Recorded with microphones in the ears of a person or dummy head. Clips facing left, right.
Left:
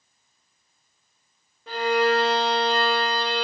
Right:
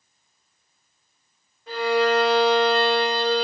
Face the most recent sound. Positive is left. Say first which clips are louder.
# right 1 dB
turn(degrees=65)  # may be behind; listen again after turning